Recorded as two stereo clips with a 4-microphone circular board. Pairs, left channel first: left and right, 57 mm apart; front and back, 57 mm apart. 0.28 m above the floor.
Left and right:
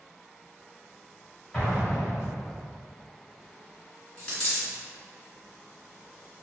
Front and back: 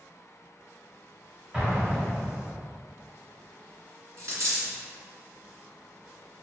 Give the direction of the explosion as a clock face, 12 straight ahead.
8 o'clock.